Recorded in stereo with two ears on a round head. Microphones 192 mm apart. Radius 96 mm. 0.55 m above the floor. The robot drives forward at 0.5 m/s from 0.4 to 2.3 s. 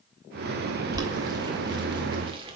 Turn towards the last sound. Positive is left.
turn(degrees=-25)  # may be behind; listen again after turning